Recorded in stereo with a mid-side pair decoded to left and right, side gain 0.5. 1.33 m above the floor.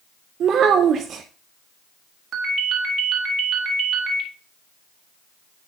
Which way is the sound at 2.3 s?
60° right.